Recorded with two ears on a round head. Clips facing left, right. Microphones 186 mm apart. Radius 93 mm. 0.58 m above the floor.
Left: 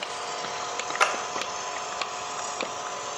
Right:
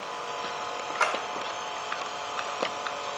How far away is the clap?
About 1.0 m.